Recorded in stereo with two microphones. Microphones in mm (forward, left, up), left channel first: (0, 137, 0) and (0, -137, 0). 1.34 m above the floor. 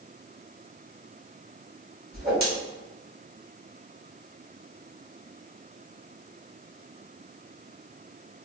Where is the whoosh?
35° right (ahead or behind), 1.7 m.